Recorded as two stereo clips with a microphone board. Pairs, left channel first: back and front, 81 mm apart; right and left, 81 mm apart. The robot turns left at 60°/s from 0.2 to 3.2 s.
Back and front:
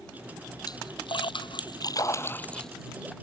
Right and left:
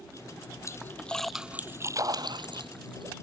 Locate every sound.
0.7 s a splash: 145° right; by 3.1 s 70° left